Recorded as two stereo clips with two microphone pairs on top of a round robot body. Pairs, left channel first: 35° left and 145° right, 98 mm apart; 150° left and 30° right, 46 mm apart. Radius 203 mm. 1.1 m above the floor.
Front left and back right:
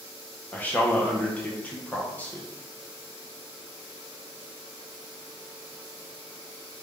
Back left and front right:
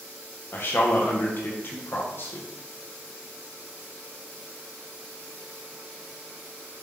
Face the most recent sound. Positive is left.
turn(degrees=105)